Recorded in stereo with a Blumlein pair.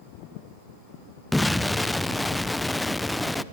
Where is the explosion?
5° left, 0.7 m.